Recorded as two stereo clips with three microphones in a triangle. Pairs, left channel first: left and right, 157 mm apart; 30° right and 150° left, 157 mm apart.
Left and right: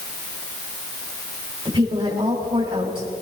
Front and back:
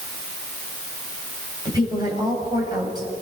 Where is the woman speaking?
145° right, 7 m.